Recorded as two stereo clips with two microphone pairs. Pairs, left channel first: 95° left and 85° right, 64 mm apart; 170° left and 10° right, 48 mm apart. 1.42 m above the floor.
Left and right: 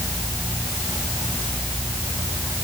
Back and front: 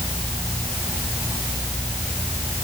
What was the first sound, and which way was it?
Only background noise.